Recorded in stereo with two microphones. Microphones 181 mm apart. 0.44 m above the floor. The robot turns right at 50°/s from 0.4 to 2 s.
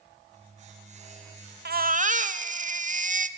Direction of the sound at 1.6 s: 55° right (ahead or behind).